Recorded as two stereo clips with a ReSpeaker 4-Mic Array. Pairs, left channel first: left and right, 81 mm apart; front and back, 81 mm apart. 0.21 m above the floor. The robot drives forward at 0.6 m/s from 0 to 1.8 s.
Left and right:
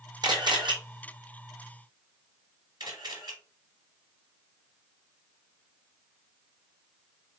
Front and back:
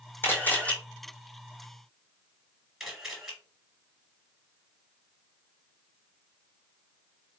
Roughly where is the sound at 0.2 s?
Ahead right.